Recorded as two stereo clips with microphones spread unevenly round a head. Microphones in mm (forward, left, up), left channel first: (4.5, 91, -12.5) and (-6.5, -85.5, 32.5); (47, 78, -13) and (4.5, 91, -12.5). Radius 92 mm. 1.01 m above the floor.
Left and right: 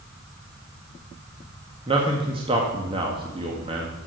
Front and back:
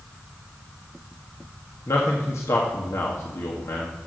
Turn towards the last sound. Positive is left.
turn(degrees=-25)